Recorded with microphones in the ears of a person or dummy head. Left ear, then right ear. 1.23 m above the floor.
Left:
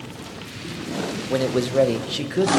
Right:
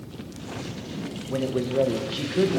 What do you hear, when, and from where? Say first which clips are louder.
1.3 s a man speaking: left 4 dB; 80° left, 0.9 m; by 2.6 s centre (ahead or behind), 0.7 m